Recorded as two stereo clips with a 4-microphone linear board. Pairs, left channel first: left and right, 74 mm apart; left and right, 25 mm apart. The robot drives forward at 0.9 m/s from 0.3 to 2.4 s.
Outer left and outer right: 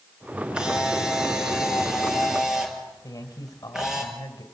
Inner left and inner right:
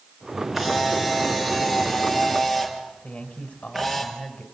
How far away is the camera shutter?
About 2.5 m.